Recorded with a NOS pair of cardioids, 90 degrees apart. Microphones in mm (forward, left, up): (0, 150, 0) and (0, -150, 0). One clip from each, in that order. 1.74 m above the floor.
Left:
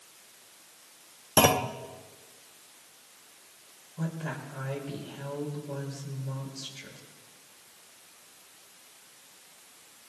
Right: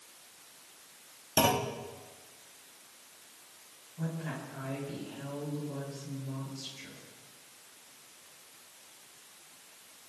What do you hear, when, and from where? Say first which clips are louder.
1.4 s a clunk: left 5 dB; 30° left, 0.9 m
4.0 s a woman speaking: left 3 dB; 45° left, 6 m